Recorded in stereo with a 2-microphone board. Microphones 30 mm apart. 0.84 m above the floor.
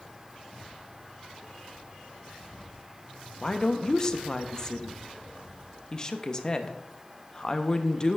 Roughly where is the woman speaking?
Left.